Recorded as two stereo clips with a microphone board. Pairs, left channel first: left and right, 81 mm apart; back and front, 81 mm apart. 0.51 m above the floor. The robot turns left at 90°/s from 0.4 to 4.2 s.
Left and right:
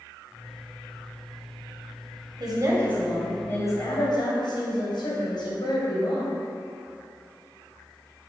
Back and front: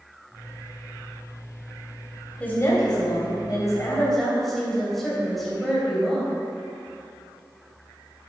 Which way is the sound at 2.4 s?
110° right.